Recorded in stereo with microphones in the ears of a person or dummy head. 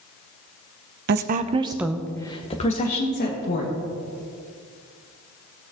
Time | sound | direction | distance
1.1 | a woman speaking | 55° right (ahead or behind) | 0.8 m